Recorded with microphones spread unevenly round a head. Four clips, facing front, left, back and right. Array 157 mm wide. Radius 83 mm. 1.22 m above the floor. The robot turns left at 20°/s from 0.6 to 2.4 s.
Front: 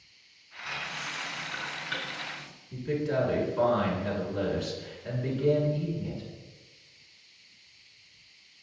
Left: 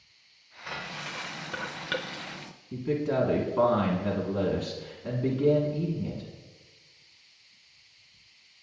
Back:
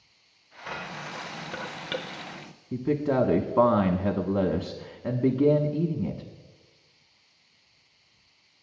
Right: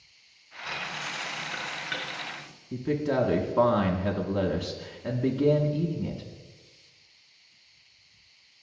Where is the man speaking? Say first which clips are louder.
Right 1 dB, back 4 dB; 170° right, 1.2 m.